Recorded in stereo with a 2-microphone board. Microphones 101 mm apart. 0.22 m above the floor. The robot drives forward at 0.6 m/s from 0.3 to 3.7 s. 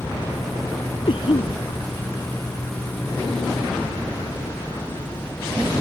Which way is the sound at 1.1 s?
60° left (ahead or behind).